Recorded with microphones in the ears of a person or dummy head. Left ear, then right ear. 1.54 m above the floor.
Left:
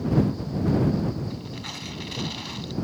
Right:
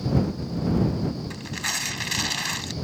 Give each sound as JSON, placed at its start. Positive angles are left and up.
{"t": 1.3, "sound": "tearing paper", "side_deg": -65}